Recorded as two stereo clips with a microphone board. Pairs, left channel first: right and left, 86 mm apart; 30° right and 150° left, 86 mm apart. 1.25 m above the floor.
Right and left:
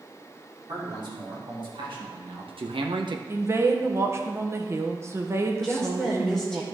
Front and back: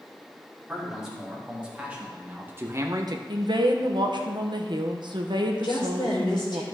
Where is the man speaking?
65° left, 3.5 m; by 3.2 s 120° left, 0.8 m.